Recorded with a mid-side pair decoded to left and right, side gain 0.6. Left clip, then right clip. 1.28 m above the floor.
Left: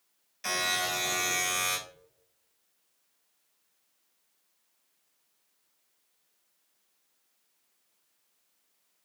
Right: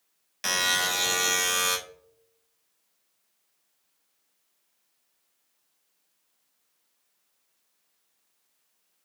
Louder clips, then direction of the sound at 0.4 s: Right 4 dB; 55° right.